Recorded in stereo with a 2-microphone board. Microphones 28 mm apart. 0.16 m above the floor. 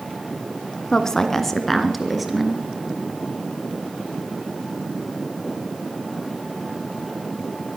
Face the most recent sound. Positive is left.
turn(degrees=-5)  # may be behind; listen again after turning